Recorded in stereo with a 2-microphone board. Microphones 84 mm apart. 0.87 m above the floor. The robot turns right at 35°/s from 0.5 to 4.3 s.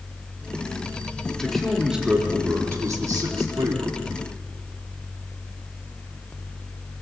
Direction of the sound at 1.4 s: 170° left.